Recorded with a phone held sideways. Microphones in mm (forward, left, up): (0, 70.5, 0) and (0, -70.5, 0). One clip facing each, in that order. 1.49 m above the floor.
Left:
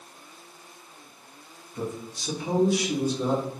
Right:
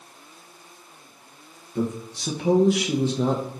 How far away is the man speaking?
About 1.7 m.